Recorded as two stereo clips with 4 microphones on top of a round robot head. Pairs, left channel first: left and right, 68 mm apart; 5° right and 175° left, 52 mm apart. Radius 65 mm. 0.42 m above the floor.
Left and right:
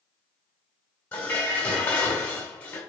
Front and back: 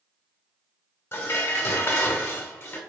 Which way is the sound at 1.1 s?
20° left.